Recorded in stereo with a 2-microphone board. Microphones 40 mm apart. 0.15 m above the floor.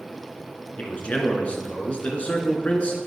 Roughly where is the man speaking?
Left.